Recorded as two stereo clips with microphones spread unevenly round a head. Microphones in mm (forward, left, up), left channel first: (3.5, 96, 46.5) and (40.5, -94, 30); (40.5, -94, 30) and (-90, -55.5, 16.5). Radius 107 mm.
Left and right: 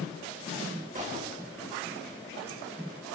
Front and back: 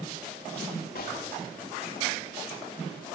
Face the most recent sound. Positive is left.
turn(degrees=-25)